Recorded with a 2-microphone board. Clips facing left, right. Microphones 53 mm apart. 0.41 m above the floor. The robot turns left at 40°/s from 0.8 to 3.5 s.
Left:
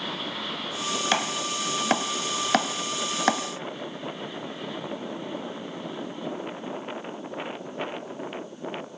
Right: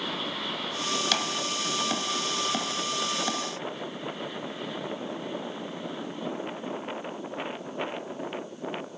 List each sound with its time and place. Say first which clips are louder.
1.1 s chopping: left 3 dB; 25° left (ahead or behind), 2 m; by 3.4 s 50° left (ahead or behind), 2 m